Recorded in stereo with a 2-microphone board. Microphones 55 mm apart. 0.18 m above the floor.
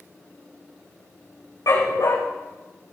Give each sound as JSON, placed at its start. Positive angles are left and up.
{"t": 1.7, "sound": "a dog barking", "side_deg": 85, "distance_m": 4.5}